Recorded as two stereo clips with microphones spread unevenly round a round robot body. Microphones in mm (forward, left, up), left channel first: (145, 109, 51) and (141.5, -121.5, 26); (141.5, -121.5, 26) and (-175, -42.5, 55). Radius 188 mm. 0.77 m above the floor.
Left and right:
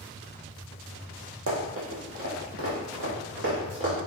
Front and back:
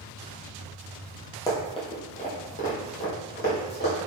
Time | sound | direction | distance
1.5 | running footsteps | 95° right | 1.1 m